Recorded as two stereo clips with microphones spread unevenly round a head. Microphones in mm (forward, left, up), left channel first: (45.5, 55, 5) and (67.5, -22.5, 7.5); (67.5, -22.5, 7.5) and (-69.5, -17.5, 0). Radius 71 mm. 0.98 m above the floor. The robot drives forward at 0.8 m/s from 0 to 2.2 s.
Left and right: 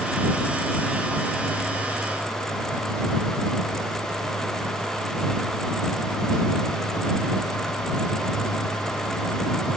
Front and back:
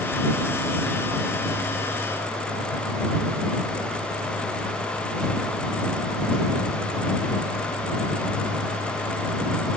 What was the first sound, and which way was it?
Only background noise.